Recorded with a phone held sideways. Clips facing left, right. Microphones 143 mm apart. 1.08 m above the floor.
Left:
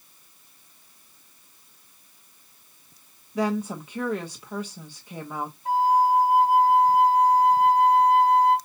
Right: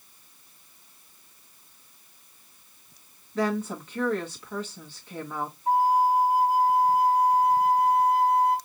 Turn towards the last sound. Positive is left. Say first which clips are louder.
# left 1 dB
turn(degrees=75)  # may be behind; listen again after turning